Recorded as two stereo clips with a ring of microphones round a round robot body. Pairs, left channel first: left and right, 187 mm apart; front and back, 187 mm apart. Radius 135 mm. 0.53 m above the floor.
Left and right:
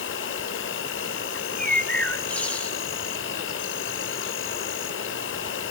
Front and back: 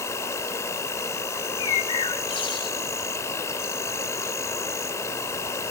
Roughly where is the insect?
Left.